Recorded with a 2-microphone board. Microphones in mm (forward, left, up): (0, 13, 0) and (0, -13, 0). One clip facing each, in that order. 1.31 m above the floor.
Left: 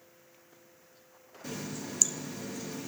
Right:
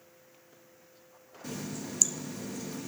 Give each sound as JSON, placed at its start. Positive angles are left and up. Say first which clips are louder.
{"t": 1.4, "sound": "a running tap", "louder": "even", "side_deg": 5, "distance_m": 0.7}